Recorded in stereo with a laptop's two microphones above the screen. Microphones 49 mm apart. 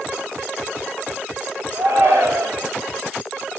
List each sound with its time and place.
1.7 s a shout: 55° right (ahead or behind), 2.5 m